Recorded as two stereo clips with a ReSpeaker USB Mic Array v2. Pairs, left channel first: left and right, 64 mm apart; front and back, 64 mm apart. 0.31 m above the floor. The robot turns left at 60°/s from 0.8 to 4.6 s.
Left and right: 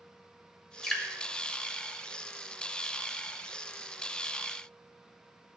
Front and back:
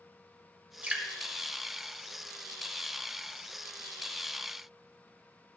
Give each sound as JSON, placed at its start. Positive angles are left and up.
{"t": 0.8, "sound": "dripping", "azimuth_deg": 155, "distance_m": 1.1}